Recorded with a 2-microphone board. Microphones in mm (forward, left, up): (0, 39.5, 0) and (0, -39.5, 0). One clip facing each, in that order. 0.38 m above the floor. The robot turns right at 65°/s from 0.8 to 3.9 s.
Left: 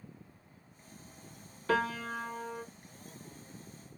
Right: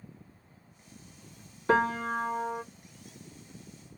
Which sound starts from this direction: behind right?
A piano, at 1.7 s.